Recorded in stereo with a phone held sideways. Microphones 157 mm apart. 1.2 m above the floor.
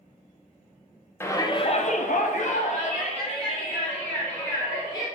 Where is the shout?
15° left (ahead or behind), 1.1 m; by 5.0 s 35° left (ahead or behind), 4 m.